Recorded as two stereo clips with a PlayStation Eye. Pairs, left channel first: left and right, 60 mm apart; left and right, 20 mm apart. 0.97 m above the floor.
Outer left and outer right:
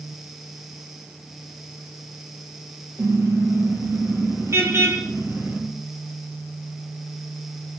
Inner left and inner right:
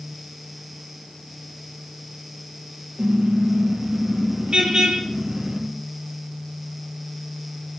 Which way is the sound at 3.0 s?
60° right (ahead or behind).